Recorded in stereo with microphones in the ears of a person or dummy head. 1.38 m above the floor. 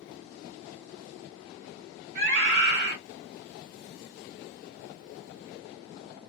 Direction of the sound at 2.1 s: 60° right (ahead or behind).